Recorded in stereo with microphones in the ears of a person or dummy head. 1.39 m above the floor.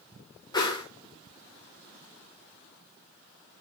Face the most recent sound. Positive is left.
turn(degrees=25)  # may be behind; listen again after turning